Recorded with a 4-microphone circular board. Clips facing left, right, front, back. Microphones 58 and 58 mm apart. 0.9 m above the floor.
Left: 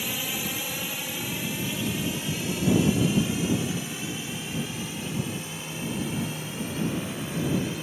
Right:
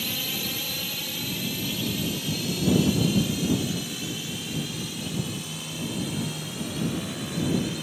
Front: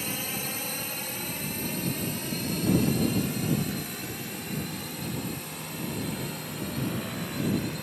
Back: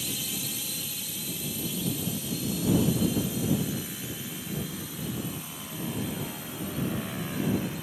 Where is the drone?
25° left; by 7.8 s 30° left.